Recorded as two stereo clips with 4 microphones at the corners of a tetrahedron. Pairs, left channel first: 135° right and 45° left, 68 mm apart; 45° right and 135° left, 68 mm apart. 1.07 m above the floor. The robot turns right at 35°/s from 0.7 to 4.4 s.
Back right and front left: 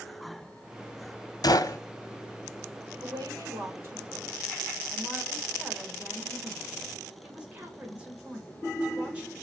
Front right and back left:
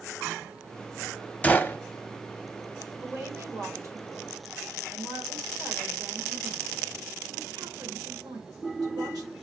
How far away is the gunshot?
About 0.6 m.